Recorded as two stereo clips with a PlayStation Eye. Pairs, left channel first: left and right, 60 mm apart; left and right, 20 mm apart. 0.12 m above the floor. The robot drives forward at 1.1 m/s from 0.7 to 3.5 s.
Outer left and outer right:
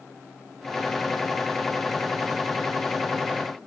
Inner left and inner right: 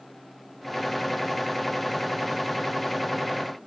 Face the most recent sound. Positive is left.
No sound to turn to.